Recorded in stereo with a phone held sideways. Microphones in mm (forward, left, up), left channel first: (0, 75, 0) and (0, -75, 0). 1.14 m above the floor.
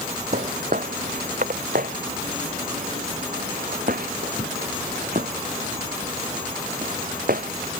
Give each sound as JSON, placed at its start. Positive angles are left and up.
{"t": 0.3, "sound": "footsteps", "side_deg": -70}